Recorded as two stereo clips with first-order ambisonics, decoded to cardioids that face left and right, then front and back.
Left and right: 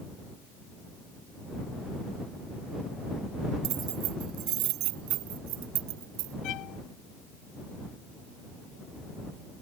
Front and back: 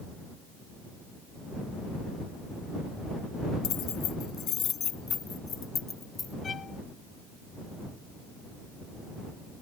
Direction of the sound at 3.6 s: 45° right.